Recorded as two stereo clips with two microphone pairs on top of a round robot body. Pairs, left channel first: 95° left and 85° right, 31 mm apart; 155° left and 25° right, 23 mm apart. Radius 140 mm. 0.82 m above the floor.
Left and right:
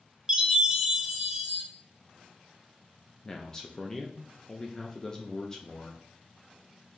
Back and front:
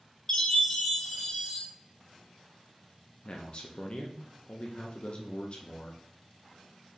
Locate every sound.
0.3 s a chime: 145° right, 1.4 m
3.2 s a man speaking: 170° left, 0.7 m